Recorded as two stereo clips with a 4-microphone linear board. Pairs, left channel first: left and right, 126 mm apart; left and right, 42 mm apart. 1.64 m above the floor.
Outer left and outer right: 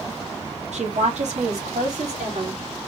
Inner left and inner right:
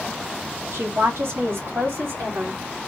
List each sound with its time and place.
0.7 s a woman speaking: 65° right (ahead or behind), 1.8 m